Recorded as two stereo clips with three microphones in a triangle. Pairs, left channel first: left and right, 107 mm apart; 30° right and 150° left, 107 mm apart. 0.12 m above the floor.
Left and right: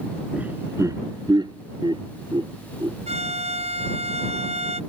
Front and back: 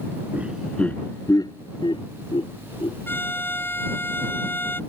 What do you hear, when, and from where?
0.3 s laughter: 160° right; by 3.0 s 50° right
3.1 s a violin: 100° right